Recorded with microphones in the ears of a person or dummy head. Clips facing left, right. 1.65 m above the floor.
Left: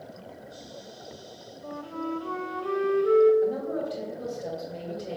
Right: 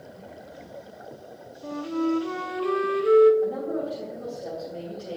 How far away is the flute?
About 0.6 m.